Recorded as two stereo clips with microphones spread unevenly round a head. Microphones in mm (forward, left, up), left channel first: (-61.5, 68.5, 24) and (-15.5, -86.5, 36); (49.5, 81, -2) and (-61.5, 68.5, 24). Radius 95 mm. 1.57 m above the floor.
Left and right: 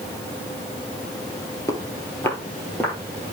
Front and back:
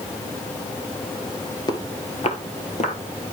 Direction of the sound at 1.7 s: 45° left.